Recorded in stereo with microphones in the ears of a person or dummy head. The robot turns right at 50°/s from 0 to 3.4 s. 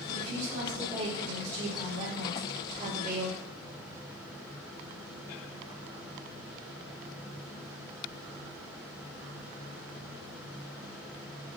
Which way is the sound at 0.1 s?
165° right.